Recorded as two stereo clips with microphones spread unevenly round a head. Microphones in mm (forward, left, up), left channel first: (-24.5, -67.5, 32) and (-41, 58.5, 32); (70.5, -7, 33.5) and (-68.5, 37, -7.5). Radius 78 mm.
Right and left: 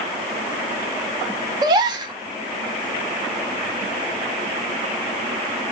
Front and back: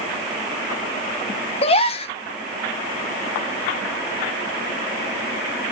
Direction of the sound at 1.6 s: 35° left.